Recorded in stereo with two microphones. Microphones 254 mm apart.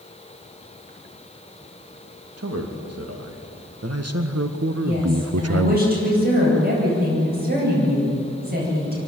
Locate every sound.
2.4 s a man speaking: 75° right (ahead or behind), 2.5 m; by 5.8 s 70° right (ahead or behind), 0.5 m
4.8 s a woman speaking: 35° right (ahead or behind), 9.5 m